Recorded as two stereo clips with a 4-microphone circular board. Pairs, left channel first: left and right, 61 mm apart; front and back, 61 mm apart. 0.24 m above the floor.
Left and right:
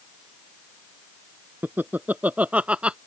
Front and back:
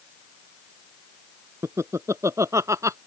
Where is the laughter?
145° right; by 3.0 s 160° right.